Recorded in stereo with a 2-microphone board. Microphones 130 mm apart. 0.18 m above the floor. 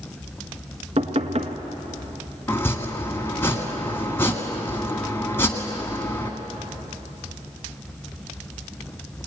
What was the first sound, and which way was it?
Knocking, 55° right (ahead or behind).